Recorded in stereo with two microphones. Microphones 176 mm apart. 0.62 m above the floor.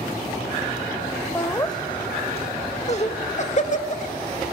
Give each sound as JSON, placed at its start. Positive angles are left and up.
{"t": 1.4, "sound": "laughter", "side_deg": 15, "distance_m": 0.8}